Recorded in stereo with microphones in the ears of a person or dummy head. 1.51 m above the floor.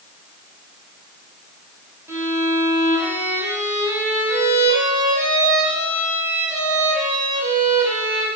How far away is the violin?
About 1.2 m.